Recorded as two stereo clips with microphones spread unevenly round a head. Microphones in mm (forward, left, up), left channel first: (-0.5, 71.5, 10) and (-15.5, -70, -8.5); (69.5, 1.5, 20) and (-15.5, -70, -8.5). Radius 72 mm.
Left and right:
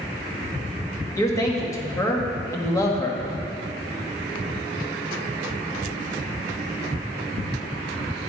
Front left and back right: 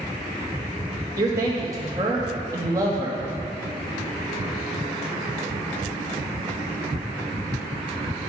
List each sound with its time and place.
1.1 s a man speaking: 155° left, 1.7 m